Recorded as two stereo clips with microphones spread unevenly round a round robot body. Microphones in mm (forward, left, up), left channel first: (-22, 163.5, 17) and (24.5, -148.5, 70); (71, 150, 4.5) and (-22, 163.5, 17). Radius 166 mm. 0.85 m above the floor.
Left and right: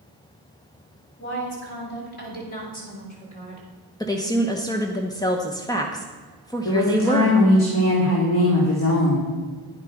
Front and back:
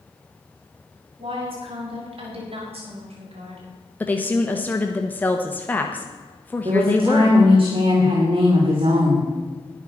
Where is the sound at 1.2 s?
150° left, 6 m; by 3.7 s 170° left, 4.5 m.